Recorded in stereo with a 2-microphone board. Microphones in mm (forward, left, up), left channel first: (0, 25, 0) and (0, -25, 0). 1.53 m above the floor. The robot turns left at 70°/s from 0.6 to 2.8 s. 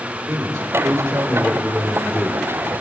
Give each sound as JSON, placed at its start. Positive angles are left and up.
{"t": 0.3, "sound": "a man speaking", "azimuth_deg": -95, "distance_m": 5.0}